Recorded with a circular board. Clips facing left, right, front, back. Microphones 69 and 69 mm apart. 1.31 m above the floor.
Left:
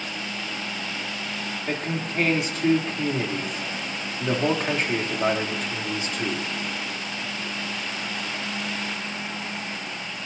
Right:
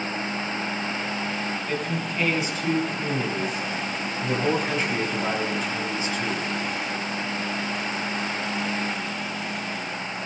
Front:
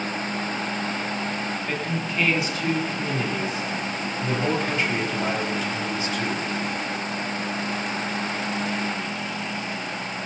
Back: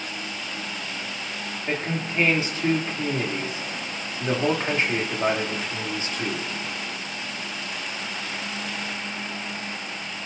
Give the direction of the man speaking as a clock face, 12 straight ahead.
8 o'clock.